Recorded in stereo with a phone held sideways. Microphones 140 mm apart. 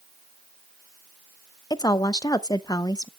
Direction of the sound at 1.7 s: 30° left (ahead or behind).